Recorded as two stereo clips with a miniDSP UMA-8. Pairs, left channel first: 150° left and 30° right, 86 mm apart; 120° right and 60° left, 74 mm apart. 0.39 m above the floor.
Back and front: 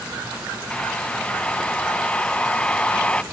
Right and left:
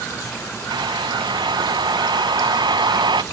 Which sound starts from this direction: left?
A hair dryer, at 0.7 s.